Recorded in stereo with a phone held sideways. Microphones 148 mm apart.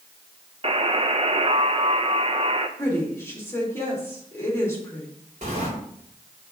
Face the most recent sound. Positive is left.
turn(degrees=-55)  # may be behind; listen again after turning